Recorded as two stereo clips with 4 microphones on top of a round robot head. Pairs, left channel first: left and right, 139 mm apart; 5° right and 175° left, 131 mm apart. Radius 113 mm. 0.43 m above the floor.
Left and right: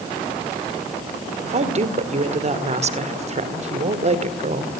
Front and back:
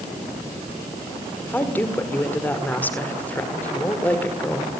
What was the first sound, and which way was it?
A woman speaking, 80° right.